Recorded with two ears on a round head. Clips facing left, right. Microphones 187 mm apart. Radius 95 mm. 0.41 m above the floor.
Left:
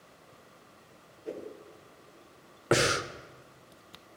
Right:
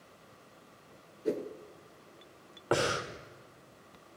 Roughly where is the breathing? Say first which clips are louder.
Left 3 dB; left.